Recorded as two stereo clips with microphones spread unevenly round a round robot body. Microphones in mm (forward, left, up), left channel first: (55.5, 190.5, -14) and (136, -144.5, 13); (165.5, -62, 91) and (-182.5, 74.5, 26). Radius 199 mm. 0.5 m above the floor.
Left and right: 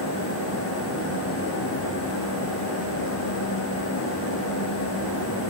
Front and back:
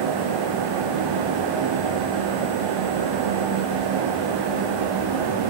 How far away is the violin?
I don't hear a violin.